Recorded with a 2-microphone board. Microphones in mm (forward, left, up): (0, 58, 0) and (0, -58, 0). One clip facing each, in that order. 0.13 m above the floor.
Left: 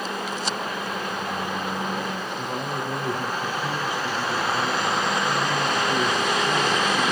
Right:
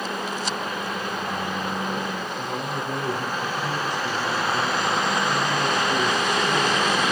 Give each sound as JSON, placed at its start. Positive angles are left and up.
{"t": 2.4, "sound": "a man speaking", "side_deg": 10, "distance_m": 3.0}